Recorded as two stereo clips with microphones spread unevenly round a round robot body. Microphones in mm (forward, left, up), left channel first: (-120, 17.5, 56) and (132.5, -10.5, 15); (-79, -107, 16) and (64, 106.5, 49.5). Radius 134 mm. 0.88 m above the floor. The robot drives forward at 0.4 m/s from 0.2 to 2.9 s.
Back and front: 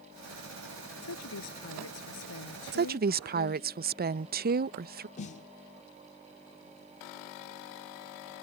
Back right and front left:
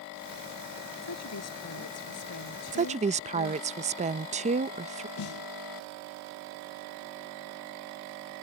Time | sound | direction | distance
1.0 | a woman speaking | 155° right | ?
2.7 | a woman speaking | 5° right | ?
5.2 | a snare drum | 145° right | ?